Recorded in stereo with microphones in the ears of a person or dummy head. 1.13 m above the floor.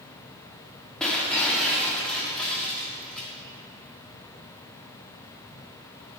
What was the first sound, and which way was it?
Breaking glass, centre (ahead or behind).